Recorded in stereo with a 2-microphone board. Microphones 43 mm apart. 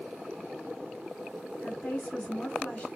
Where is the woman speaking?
25° left (ahead or behind), 2 m.